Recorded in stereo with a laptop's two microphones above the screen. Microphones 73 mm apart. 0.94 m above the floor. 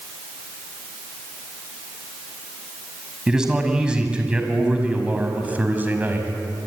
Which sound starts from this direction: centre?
A man speaking, at 3.3 s.